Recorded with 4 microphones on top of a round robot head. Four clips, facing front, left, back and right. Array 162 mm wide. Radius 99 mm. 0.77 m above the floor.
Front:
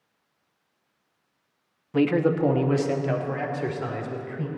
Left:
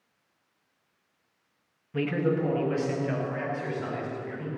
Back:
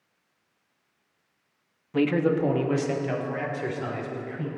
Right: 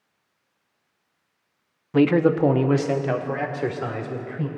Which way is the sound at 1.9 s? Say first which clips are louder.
Right 9 dB, front 1 dB; 85° right.